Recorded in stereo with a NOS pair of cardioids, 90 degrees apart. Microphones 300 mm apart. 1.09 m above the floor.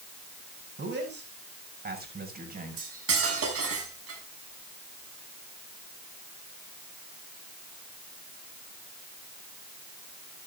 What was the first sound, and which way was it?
A man speaking, 35° right.